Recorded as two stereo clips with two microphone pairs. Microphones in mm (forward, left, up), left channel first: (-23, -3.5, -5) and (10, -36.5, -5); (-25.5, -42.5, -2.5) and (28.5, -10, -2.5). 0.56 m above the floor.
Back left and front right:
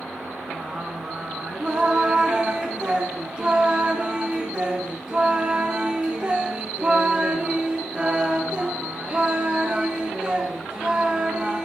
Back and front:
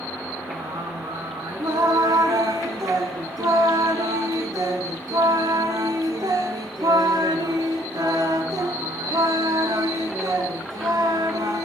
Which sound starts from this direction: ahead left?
Singing, at 0.5 s.